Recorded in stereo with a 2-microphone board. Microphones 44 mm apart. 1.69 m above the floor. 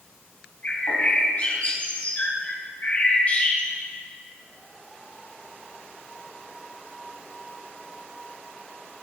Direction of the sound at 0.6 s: 40° left (ahead or behind).